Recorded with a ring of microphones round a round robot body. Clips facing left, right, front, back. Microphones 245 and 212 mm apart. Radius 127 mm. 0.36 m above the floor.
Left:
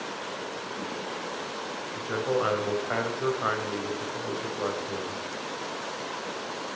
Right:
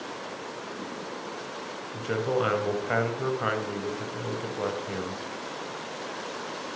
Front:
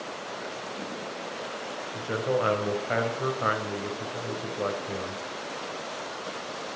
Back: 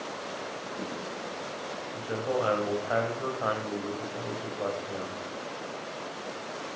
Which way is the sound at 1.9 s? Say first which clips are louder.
Right 1 dB, front 3 dB; 65° right.